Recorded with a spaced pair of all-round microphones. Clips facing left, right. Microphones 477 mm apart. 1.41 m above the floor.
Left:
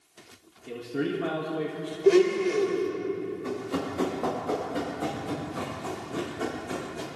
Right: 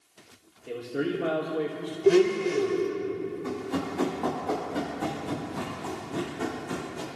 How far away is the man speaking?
About 1.5 m.